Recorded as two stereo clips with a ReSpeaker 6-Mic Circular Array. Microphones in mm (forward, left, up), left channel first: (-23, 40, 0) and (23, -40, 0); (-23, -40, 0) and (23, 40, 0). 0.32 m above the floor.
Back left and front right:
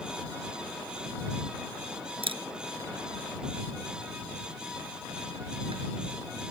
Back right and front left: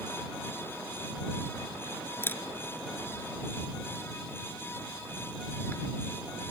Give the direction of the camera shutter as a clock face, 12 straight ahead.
2 o'clock.